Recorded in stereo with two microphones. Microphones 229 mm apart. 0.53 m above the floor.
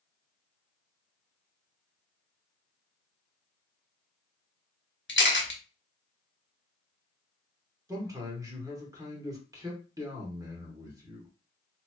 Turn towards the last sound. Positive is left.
turn(degrees=-15)  # may be behind; listen again after turning